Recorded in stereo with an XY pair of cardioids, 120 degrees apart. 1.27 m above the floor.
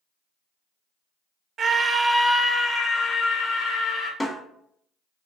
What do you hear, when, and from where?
1.6 s a scream: 40° right, 0.7 m; by 4.1 s 55° left, 1.6 m
4.2 s a snare drum: 5° left, 1.4 m